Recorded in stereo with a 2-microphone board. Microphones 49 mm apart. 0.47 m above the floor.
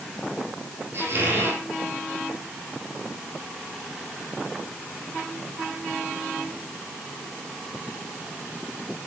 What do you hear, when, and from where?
0.9 s a squeak: 55° right (ahead or behind), 5.5 m